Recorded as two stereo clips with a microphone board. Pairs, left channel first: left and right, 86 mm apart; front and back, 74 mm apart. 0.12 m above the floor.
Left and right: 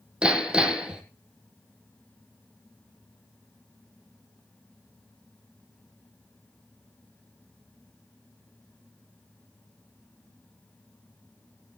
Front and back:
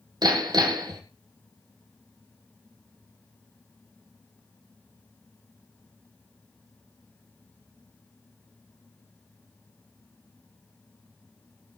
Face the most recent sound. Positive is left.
turn(degrees=-170)